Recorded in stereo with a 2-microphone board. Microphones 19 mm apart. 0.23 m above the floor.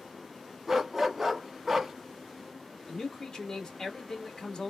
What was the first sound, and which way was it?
A dog barking, 15° right (ahead or behind).